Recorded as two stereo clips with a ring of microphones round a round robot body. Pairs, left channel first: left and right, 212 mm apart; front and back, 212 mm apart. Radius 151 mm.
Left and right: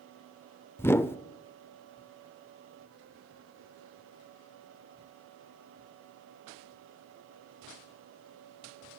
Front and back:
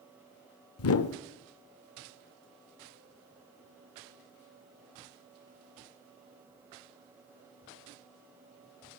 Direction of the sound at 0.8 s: 10° left.